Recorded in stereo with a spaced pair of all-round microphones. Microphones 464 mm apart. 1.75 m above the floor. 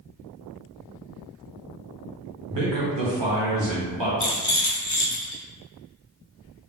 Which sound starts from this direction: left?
A rattle, at 4.2 s.